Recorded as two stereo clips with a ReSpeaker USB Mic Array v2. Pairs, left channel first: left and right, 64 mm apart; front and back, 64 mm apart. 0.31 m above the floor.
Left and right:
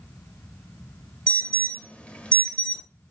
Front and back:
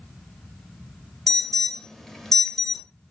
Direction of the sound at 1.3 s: 65° left.